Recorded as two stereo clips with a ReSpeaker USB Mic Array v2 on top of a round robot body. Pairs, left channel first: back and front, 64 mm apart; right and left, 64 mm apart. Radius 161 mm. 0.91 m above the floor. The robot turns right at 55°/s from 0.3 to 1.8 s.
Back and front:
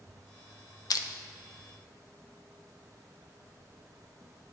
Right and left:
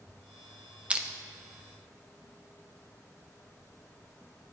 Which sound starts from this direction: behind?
Crushing, at 0.9 s.